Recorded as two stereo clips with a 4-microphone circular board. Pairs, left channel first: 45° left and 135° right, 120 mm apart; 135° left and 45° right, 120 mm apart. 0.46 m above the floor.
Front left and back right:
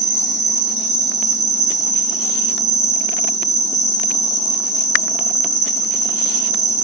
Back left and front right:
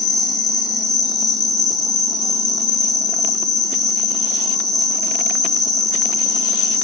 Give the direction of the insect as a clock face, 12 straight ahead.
6 o'clock.